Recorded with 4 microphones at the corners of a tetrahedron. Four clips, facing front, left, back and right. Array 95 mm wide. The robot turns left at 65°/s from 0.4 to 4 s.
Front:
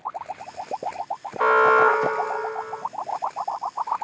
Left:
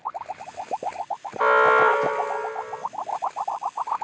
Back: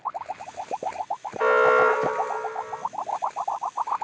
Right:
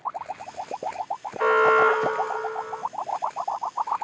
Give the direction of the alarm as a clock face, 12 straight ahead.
11 o'clock.